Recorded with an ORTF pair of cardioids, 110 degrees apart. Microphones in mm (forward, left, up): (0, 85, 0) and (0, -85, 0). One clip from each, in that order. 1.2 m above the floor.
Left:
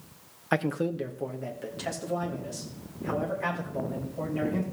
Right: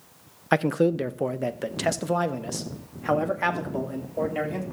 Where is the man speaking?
20° right, 0.6 m; by 4.6 s 75° right, 3 m.